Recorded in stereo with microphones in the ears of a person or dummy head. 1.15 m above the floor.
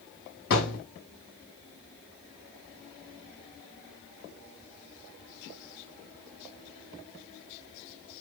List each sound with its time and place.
0.5 s a thud: 55° left (ahead or behind), 4 m